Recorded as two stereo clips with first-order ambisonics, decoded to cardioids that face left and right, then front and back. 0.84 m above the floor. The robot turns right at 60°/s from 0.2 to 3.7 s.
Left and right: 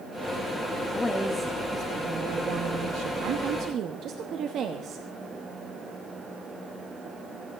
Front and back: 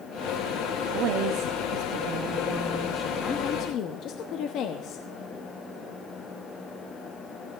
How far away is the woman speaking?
About 1.0 m.